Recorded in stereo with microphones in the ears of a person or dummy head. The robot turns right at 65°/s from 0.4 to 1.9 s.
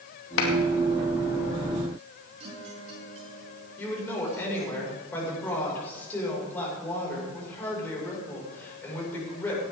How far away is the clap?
About 2.5 m.